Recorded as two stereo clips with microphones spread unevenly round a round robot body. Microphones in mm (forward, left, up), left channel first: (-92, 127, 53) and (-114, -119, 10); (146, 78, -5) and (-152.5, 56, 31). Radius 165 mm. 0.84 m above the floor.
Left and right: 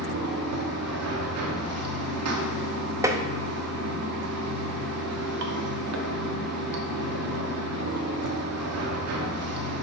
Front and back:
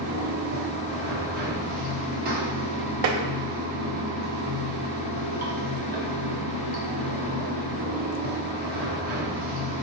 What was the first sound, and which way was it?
Running water, 110° right.